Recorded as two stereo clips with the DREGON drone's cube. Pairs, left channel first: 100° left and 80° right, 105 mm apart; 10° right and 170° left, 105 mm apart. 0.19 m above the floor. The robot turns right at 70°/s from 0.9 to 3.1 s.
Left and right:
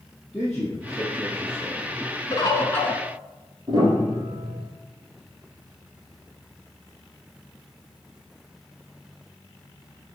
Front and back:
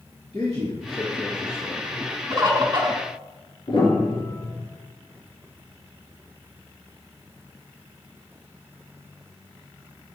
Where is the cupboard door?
I don't hear a cupboard door.